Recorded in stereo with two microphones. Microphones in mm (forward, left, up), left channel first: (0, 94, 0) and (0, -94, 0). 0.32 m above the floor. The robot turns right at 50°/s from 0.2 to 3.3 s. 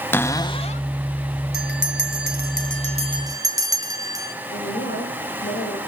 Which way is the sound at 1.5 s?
110° right.